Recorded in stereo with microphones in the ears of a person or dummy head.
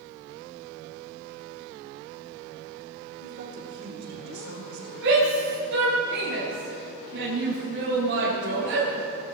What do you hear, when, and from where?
3.2 s a woman speaking: 60° right (ahead or behind), 4 m
5.0 s a shout: 70° right (ahead or behind), 6.5 m